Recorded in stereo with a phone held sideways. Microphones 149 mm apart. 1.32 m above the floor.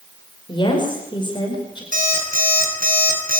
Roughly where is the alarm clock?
Right.